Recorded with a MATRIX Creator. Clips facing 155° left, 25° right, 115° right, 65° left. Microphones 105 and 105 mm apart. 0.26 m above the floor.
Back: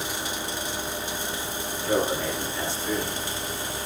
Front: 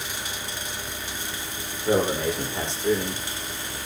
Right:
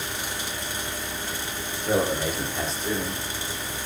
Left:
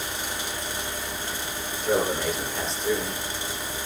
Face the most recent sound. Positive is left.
turn(degrees=-25)